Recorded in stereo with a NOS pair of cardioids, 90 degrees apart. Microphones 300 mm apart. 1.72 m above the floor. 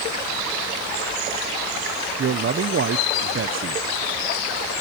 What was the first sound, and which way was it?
A man speaking, 40° right.